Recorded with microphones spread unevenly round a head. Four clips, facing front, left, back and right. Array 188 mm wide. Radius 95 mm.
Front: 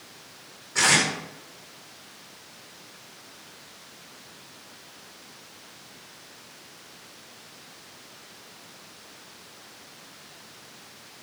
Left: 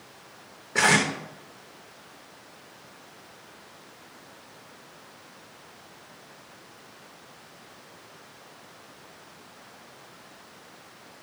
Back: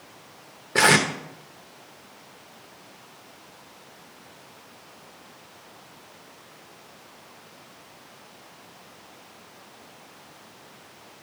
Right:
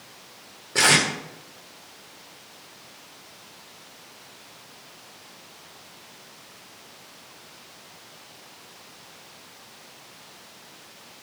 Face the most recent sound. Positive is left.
turn(degrees=180)